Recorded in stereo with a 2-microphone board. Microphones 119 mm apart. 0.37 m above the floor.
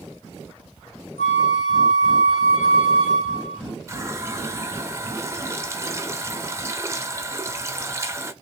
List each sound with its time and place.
1.2 s a flute: 75° left (ahead or behind), 0.7 m
3.9 s a running tap: 25° right (ahead or behind), 0.5 m